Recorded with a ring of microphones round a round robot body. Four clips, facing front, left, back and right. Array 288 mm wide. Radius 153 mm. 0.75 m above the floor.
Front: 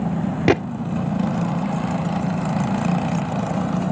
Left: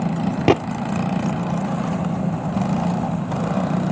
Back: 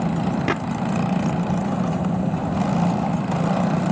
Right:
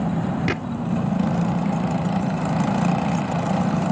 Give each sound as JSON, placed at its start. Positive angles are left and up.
{"t": 0.5, "sound": "a gunshot", "azimuth_deg": 55}